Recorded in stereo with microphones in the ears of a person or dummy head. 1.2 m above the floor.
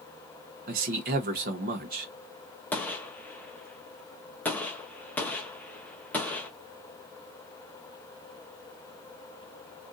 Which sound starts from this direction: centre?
A gunshot, at 2.7 s.